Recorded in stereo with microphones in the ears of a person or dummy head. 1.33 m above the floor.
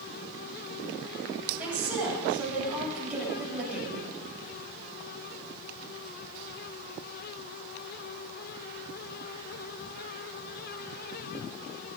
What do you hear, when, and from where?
1.6 s a woman speaking: 5° right (ahead or behind), 8.5 m